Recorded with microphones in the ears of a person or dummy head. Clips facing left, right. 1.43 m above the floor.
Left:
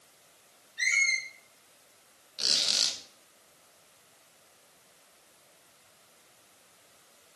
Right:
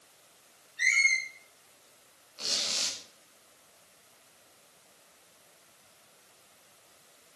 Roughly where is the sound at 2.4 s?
Centre.